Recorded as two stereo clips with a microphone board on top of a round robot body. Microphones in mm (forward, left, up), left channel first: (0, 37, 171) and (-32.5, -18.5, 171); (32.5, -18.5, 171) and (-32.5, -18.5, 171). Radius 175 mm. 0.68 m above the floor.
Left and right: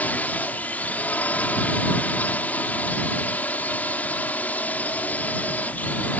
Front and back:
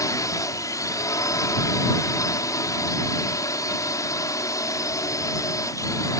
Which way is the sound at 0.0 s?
Straight ahead.